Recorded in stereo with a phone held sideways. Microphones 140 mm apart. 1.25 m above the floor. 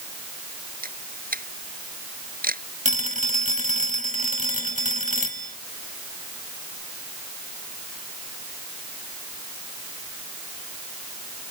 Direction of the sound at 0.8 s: 80° right.